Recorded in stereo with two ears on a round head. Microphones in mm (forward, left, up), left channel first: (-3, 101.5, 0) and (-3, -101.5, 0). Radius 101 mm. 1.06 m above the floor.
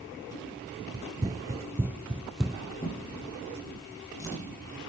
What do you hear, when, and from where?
0.9 s running footsteps: 20° right (ahead or behind), 1.2 m; by 2.6 s centre (ahead or behind), 1.2 m
2.8 s a drawer: 15° left (ahead or behind), 10 m